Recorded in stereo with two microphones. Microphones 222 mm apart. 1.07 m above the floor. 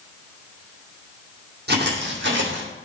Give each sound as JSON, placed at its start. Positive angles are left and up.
{"t": 1.7, "sound": "footsteps", "side_deg": -50, "distance_m": 2.5}